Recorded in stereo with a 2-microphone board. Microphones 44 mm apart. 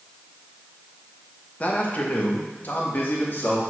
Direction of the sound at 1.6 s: 35° left (ahead or behind).